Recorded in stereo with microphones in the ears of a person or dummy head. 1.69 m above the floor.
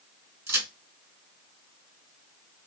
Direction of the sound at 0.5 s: 15° right (ahead or behind).